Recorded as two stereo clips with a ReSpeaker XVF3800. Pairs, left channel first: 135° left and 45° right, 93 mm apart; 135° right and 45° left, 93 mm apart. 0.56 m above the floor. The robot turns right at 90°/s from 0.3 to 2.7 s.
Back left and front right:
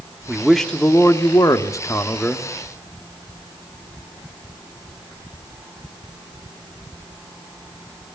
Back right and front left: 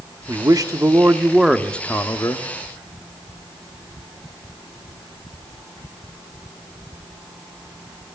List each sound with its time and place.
0.3 s a man speaking: 25° left, 1.4 m; by 2.5 s 140° right, 1.4 m